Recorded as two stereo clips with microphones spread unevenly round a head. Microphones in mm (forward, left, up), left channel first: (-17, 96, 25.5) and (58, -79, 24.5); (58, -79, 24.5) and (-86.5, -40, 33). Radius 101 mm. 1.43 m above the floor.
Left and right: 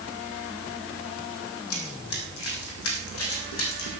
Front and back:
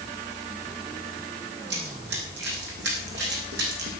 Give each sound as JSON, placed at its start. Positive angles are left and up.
{"t": 1.7, "sound": "running footsteps", "azimuth_deg": 130, "distance_m": 4.0}